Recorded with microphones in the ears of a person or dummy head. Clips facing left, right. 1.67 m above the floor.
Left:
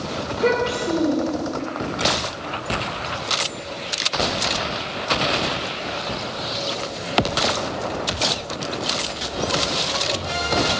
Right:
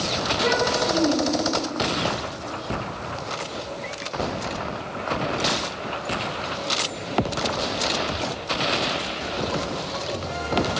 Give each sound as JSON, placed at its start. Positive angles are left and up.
{"t": 0.3, "sound": "a child speaking", "side_deg": 60, "distance_m": 3.0}